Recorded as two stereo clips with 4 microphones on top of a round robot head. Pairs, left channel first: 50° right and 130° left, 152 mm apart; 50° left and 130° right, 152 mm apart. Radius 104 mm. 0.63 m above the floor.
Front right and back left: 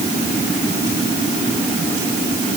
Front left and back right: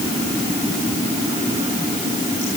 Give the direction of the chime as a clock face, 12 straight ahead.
I don't hear a chime.